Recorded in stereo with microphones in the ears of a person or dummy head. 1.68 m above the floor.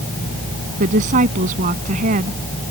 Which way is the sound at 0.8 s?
40° right (ahead or behind).